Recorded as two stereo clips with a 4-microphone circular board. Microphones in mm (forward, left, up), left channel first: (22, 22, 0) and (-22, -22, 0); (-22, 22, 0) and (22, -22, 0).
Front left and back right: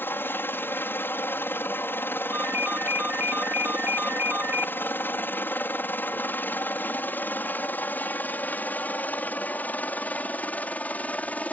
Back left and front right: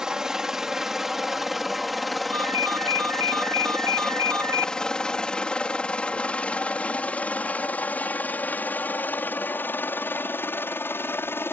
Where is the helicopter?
30° left; by 11.5 s 105° left.